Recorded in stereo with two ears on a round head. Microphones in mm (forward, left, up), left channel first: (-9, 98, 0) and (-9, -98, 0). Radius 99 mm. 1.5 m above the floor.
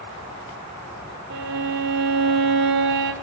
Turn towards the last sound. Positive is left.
turn(degrees=-55)  # may be behind; listen again after turning